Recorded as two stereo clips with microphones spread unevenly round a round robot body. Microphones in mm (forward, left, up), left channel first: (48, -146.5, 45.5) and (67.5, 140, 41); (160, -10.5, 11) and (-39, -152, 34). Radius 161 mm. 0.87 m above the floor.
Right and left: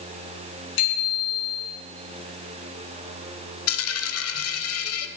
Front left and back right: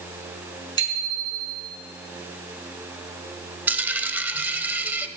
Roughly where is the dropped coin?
Ahead right.